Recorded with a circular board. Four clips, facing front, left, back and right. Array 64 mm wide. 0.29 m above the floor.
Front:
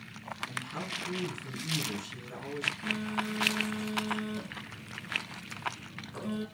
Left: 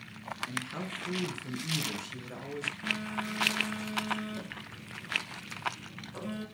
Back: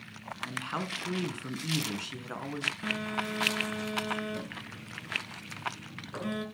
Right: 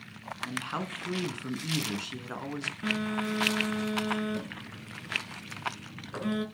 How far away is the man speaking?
About 3 m.